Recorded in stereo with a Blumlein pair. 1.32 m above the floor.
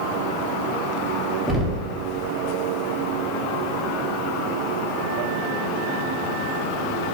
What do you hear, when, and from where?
1.5 s knocking: 5° left, 2.5 m